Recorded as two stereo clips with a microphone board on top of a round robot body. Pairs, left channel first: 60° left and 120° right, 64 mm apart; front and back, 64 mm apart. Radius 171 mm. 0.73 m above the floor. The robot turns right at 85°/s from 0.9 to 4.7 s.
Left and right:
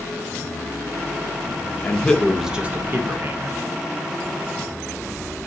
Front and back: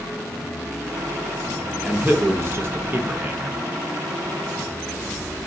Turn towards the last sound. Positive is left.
turn(degrees=-5)